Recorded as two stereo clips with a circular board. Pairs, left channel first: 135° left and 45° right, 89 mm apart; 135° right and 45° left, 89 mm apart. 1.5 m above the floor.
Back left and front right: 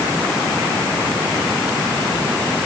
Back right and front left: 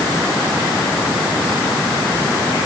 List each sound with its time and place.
Only background noise.